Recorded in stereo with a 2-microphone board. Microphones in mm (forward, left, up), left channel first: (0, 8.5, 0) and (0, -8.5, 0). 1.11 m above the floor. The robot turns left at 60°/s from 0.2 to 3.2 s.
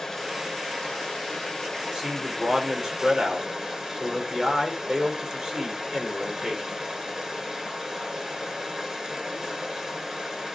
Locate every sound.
0.0 s running water: 145° left, 2.5 m; by 10.6 s 35° right, 2.5 m
1.8 s a man speaking: 40° right, 3.5 m; by 6.6 s 120° right, 3.5 m